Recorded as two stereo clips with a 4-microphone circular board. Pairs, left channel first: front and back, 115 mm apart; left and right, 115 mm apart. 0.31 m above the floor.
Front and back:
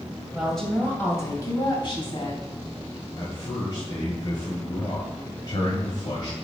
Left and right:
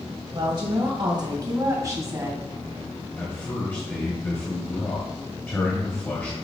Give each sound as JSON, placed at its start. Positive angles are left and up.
{"t": 0.3, "sound": "a woman speaking", "azimuth_deg": -100, "distance_m": 1.8}
{"t": 3.2, "sound": "a man speaking", "azimuth_deg": 25, "distance_m": 1.8}